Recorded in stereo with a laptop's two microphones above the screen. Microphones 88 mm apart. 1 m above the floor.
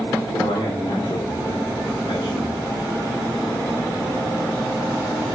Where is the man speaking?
85° left, 2.5 m.